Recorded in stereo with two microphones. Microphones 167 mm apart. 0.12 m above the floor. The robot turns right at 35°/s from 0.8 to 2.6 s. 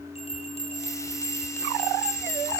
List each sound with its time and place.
0.1 s a bell: 35° left (ahead or behind), 6.5 m; by 2.6 s 25° right (ahead or behind), 6.5 m